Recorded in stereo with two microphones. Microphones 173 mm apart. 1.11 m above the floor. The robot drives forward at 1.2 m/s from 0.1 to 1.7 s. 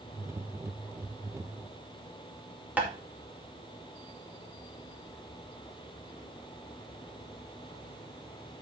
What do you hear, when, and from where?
2.8 s tapping: 10° right (ahead or behind), 2.5 m